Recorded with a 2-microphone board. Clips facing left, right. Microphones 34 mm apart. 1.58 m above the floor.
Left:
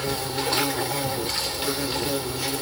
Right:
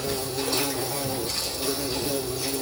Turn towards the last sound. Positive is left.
turn(degrees=45)  # may be behind; listen again after turning